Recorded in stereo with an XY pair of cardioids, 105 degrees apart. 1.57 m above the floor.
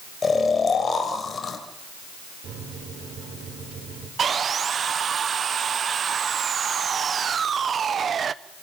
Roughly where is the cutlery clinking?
I don't hear cutlery clinking.